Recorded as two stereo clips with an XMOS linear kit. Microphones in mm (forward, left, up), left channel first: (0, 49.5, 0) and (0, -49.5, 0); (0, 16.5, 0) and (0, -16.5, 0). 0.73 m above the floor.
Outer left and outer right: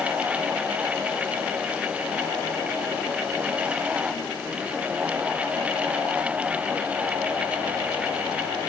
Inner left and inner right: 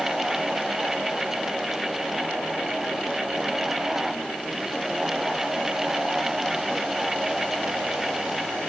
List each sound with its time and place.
Only background noise.